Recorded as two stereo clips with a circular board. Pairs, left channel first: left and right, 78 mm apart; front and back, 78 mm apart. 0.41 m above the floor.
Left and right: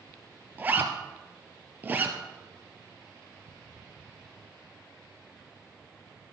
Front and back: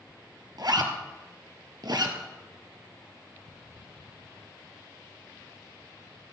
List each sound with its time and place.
0.6 s a zipper: 155° right, 1.3 m